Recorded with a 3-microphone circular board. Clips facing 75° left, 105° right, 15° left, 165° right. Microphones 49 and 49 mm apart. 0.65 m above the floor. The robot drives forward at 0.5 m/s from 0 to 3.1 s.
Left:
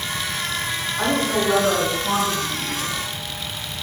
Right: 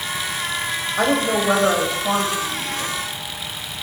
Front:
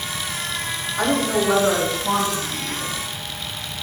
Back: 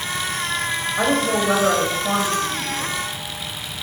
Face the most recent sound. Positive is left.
turn(degrees=-130)